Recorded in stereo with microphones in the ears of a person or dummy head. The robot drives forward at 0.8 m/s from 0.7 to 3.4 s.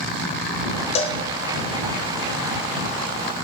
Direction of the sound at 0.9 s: 30° left (ahead or behind).